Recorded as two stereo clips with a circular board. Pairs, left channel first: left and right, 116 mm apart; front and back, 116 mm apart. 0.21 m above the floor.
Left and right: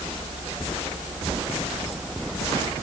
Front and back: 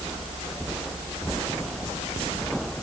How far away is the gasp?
No gasp in this recording.